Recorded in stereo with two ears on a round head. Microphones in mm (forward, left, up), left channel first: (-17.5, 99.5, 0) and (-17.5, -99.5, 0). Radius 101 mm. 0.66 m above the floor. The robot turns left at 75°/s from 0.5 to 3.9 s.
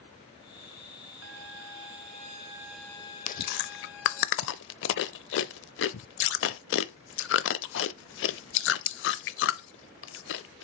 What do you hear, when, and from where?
1.2 s a violin: 65° right, 1.5 m; by 4.3 s 95° left, 1.5 m
3.3 s chewing: 35° left (ahead or behind), 0.6 m; by 10.6 s 60° left (ahead or behind), 0.6 m